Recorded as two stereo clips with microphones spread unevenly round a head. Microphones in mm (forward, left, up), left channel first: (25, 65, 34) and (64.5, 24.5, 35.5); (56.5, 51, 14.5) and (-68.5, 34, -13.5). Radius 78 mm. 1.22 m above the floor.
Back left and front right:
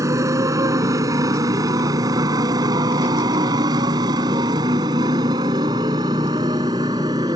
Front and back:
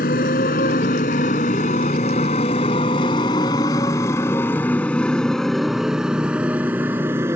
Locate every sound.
0.0 s a motorcycle: 20° right; by 7.4 s 95° right